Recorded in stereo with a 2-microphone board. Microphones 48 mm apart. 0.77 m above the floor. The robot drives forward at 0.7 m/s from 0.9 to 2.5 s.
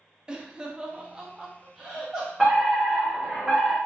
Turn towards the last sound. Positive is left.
turn(degrees=-5)  # may be behind; listen again after turning